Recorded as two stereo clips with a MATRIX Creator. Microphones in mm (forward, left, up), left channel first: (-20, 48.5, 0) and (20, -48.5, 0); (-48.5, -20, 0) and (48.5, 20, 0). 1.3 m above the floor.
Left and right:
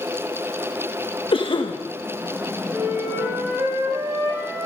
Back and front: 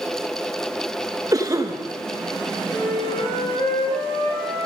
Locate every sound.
1.3 s a cough: 80° left, 1.7 m
2.7 s a flute: 130° right, 5.5 m